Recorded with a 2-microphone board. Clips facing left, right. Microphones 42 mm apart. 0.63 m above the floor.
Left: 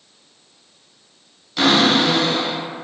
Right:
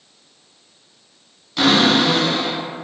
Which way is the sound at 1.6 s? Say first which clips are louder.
Even; centre (ahead or behind).